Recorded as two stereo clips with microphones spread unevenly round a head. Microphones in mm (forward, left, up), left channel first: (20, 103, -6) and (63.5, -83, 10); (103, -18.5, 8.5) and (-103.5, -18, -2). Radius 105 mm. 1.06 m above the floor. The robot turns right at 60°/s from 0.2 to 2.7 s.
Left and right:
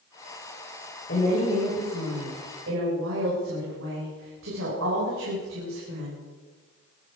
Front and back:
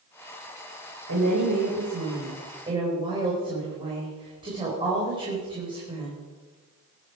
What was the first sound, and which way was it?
A woman speaking, 150° left.